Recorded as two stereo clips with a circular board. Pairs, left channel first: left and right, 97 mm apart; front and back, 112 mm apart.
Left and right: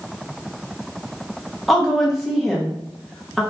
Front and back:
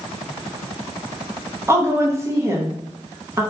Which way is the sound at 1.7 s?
175° right.